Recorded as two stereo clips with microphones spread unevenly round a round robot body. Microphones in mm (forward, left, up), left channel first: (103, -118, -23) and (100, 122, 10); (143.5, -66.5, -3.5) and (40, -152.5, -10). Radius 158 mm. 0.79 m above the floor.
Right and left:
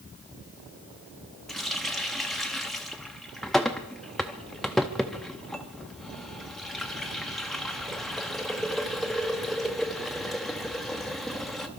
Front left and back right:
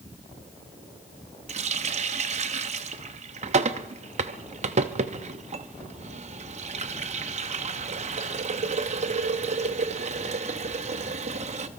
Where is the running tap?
175° right, 0.6 m.